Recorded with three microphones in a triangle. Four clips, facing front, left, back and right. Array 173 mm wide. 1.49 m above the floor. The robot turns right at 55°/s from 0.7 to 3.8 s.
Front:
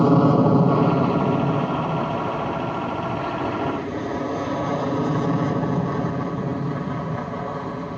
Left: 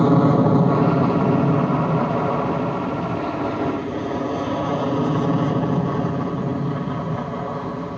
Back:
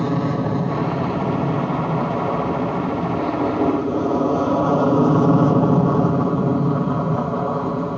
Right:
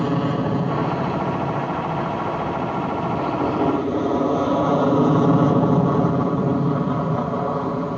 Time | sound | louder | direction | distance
0.0 | an aircraft | left 6 dB, front 5 dB | 40° left | ?